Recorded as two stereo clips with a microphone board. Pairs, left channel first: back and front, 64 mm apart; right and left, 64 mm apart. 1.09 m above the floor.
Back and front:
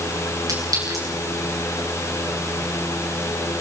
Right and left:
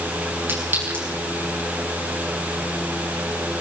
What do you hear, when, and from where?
0.5 s a clink: 30° left, 10 m